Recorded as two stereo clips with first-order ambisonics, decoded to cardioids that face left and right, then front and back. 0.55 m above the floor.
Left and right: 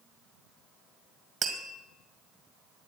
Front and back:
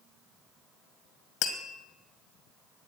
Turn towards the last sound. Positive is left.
turn(degrees=-25)